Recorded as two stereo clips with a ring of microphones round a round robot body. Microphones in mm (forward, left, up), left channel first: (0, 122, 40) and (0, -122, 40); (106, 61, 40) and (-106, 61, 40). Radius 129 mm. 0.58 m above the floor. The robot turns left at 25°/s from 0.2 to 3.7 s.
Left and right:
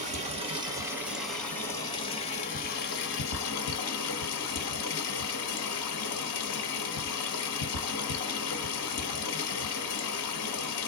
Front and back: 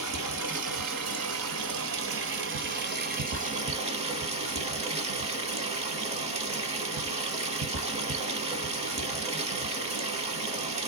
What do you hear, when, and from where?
0.0 s running water: 155° right, 1.2 m; by 10.9 s 120° left, 1.2 m